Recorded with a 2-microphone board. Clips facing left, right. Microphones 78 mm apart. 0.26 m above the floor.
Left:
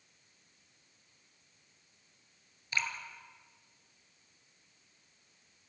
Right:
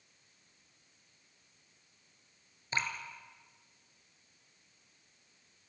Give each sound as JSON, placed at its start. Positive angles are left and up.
{"t": 2.7, "sound": "dripping", "side_deg": -30, "distance_m": 2.5}